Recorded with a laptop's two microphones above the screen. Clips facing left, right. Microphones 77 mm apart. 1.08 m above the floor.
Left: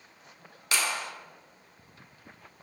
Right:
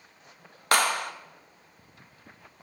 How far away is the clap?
About 0.8 m.